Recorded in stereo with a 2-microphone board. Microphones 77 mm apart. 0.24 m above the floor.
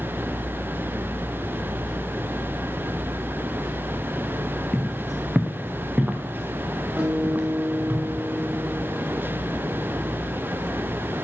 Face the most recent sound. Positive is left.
turn(degrees=-20)  # may be behind; listen again after turning